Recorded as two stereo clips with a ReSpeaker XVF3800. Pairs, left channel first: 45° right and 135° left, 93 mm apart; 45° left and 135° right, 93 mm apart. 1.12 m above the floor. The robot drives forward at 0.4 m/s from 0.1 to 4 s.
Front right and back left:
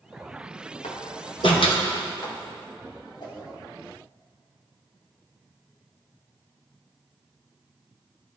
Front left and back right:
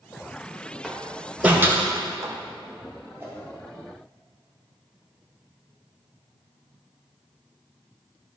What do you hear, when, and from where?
0.8 s a door slam: 50° right, 1.1 m; by 2.3 s 85° right, 0.8 m
3.2 s a whoosh: 70° right, 2.0 m; by 3.4 s 75° right, 1.9 m